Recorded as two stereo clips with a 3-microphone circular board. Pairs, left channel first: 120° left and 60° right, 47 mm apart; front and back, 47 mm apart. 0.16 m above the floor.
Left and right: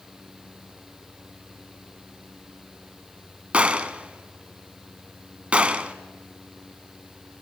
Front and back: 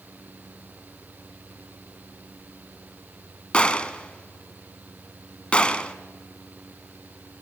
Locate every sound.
3.5 s a gunshot: 35° right, 0.7 m